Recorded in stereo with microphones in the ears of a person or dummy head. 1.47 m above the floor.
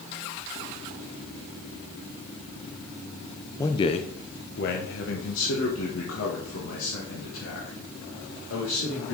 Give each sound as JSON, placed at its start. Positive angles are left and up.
{"t": 3.6, "sound": "a man speaking", "side_deg": 20, "distance_m": 0.5}